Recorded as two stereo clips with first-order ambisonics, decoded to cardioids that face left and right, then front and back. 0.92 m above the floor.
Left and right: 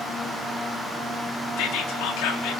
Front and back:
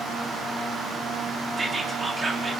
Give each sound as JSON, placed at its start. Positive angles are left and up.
{"t": 1.6, "sound": "whispering", "azimuth_deg": 105, "distance_m": 1.5}